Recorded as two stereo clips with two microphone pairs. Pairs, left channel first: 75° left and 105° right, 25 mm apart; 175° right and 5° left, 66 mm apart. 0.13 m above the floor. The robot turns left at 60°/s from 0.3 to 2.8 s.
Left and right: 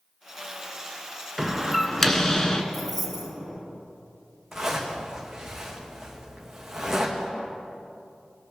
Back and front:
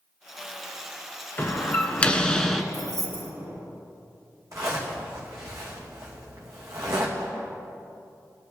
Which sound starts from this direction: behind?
A door slam, at 1.4 s.